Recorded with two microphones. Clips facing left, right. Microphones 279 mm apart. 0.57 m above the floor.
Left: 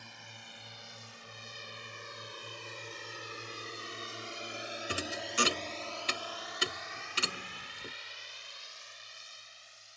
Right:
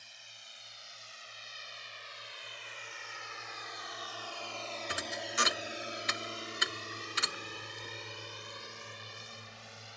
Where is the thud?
35° left (ahead or behind).